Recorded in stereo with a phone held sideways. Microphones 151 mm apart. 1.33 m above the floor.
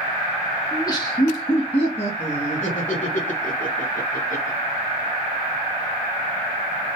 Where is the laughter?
25° left (ahead or behind), 2 m; by 4.6 s 60° left (ahead or behind), 3.5 m.